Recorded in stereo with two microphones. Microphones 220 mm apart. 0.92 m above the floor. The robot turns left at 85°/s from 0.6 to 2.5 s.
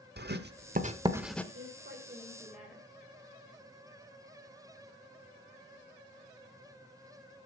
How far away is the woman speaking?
About 4 m.